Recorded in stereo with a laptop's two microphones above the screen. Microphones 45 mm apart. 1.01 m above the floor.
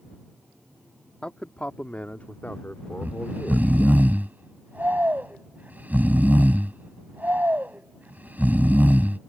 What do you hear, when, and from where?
1.2 s a man speaking: 25° left (ahead or behind); by 4.0 s 50° left (ahead or behind)
3.0 s snoring: 35° right (ahead or behind)